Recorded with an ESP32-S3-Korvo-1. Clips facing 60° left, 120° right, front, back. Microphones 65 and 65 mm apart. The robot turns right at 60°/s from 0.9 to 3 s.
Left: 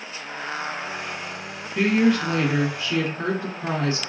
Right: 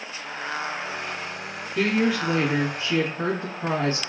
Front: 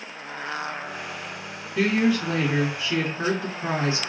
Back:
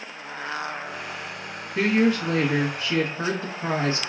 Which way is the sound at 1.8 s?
135° left.